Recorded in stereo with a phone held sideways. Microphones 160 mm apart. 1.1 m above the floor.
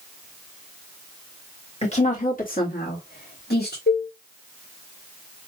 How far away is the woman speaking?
About 1.6 m.